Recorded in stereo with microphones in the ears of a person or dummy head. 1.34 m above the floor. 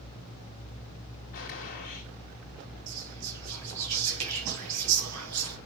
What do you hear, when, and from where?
1.3 s a gunshot: 45° left (ahead or behind), 2.5 m
2.9 s whispering: 80° right, 2.5 m